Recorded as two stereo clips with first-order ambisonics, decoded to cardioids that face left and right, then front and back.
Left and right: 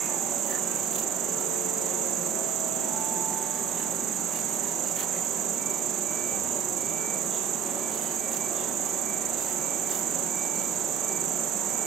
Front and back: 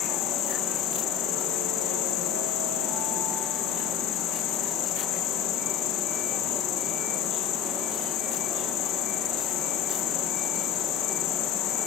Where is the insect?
35° right.